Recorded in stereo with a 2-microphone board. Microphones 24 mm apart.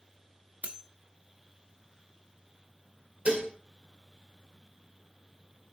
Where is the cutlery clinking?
70° right (ahead or behind), 1.0 m.